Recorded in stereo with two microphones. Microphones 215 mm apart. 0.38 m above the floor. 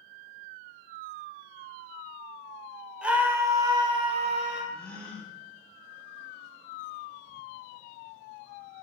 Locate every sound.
3.0 s a scream: 5° right (ahead or behind), 1.5 m; by 4.6 s 35° right (ahead or behind), 1.7 m
4.7 s a gasp: 5° left (ahead or behind), 1.9 m